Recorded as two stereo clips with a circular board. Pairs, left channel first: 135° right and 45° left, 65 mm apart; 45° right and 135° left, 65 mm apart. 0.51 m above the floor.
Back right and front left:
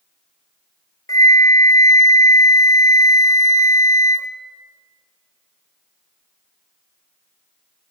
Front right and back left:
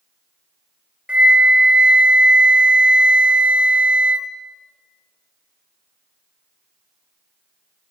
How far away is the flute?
About 0.9 m.